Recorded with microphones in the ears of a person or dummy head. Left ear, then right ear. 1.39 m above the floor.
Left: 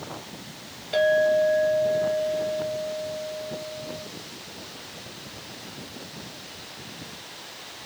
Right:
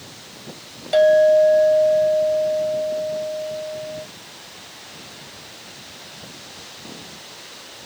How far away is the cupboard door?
No cupboard door in this recording.